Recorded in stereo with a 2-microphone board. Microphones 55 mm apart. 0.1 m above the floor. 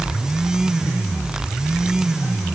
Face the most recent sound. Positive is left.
No sound to turn to.